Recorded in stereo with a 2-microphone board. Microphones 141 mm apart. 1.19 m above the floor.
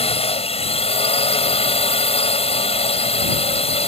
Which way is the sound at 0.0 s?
45° left (ahead or behind).